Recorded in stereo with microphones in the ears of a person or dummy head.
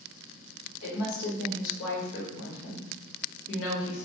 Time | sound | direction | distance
0.8 | a woman speaking | 80° left | 1.0 m